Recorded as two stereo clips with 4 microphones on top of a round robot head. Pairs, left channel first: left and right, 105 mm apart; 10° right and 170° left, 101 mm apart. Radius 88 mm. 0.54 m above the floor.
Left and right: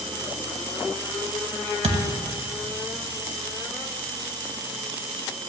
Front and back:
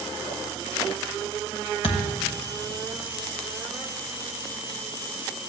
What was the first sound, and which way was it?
A thud, 50° right.